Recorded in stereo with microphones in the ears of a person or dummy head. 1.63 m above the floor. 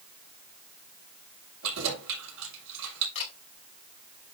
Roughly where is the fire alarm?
I don't hear a fire alarm.